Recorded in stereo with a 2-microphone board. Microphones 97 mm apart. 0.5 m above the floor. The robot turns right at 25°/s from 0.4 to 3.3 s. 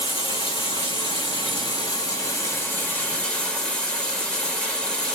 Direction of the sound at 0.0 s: 95° left.